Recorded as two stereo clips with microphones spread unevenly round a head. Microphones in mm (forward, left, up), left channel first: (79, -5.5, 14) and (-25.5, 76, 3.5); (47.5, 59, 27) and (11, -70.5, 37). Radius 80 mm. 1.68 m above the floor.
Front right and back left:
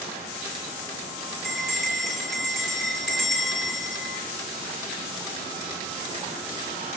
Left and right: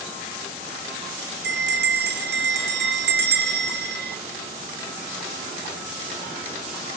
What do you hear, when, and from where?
1.4 s a bell: 125° right, 1.7 m